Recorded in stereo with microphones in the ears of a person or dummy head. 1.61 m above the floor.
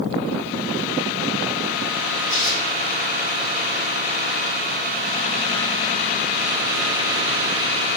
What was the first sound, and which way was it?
Tearing paper, 70° left (ahead or behind).